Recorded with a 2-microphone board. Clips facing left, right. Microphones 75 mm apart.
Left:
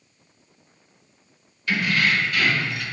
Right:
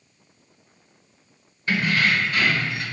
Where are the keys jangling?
30° right (ahead or behind), 1.0 m.